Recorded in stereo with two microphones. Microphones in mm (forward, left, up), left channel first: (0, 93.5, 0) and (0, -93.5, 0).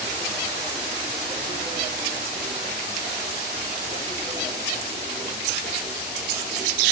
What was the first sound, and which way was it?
Only background noise.